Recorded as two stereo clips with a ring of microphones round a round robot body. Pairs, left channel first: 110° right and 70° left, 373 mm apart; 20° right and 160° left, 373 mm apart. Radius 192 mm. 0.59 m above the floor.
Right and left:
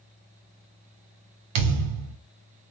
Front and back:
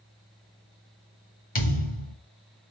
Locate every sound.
1.6 s a thud: 45° left, 1.1 m